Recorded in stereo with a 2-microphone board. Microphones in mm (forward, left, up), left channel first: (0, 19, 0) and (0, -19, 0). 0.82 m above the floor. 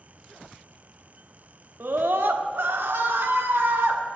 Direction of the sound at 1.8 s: 70° right (ahead or behind).